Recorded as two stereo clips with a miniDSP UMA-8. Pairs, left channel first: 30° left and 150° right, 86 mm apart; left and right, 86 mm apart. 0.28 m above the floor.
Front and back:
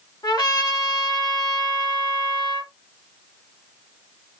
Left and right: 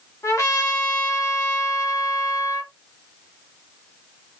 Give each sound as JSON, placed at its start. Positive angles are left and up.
{"t": 0.2, "sound": "a trumpet", "azimuth_deg": 50, "distance_m": 2.5}